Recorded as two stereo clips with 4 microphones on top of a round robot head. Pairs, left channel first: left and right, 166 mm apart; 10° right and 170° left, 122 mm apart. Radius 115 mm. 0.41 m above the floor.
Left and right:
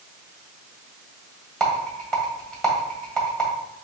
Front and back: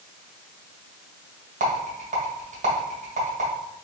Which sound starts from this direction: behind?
A rattle, at 1.6 s.